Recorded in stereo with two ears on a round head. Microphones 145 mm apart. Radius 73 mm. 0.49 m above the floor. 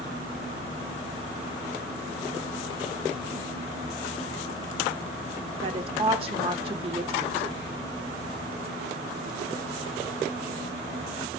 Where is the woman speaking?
40° right (ahead or behind), 1.1 m.